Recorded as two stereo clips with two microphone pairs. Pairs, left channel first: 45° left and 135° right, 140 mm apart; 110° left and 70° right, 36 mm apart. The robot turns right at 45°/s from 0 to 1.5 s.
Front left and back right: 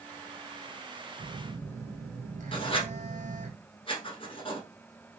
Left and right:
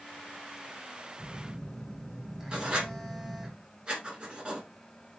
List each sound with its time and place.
1.2 s a phone buzzing: 165° right, 0.9 m; by 3.5 s 150° right, 0.9 m
2.5 s writing: 5° right, 1.2 m